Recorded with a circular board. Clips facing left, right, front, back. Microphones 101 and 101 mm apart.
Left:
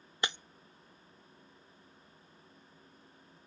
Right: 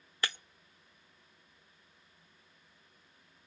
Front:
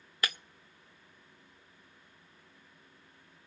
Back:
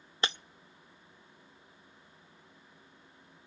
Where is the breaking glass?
145° left, 0.5 m.